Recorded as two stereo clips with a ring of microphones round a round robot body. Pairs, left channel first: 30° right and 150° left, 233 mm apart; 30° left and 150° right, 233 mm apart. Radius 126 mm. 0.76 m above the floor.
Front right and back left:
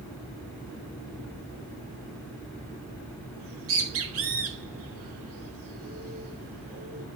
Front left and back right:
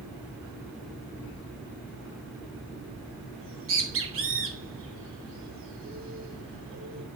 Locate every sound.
3.4 s a bird: 175° left, 3.5 m